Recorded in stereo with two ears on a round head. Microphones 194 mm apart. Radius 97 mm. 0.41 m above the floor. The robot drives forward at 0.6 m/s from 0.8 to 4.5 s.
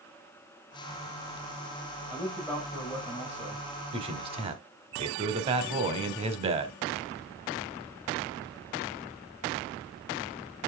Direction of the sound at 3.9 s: 25° right (ahead or behind).